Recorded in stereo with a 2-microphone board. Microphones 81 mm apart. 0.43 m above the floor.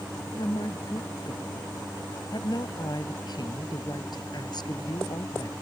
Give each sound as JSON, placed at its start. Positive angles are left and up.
{"t": 0.3, "sound": "a woman speaking", "side_deg": 60}